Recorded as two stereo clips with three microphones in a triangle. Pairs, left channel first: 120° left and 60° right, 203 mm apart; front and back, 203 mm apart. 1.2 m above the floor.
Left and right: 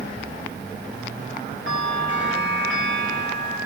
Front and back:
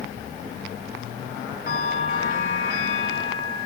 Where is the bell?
45° right, 8.5 m.